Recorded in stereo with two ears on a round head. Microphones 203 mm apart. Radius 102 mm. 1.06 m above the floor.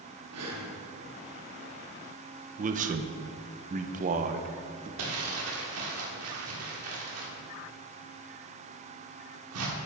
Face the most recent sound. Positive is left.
turn(degrees=-75)  # may be behind; listen again after turning